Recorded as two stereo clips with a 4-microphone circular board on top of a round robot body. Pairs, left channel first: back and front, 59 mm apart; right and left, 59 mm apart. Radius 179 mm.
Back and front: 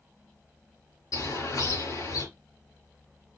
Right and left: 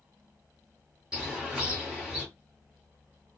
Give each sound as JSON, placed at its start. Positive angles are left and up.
{"t": 1.1, "sound": "a bird", "azimuth_deg": 170, "distance_m": 4.5}